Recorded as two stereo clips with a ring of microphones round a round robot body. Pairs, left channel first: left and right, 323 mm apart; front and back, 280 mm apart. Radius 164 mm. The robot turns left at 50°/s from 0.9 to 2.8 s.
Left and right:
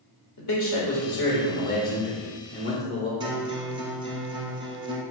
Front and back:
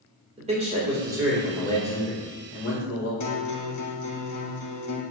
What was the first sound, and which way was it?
A man speaking, 115° left.